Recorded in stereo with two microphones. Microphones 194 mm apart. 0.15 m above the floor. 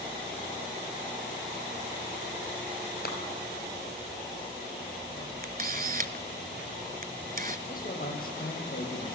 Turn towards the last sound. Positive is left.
turn(degrees=50)  # may be behind; listen again after turning